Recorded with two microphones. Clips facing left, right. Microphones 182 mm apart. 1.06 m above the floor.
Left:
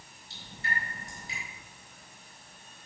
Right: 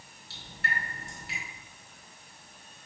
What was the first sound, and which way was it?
Dripping, 75° right (ahead or behind).